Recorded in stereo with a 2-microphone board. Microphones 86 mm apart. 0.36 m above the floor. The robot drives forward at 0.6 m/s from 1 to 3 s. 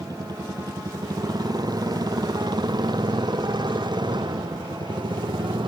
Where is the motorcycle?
45° right (ahead or behind); by 5.7 s 65° right (ahead or behind).